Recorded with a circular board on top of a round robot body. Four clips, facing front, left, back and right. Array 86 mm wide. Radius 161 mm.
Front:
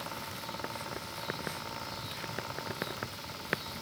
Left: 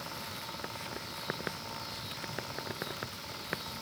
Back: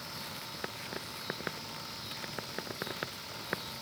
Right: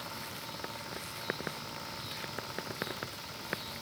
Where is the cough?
I don't hear a cough.